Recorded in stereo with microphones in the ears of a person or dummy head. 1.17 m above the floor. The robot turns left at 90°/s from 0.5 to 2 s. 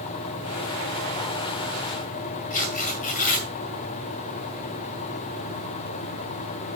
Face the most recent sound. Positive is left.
turn(degrees=45)  # may be behind; listen again after turning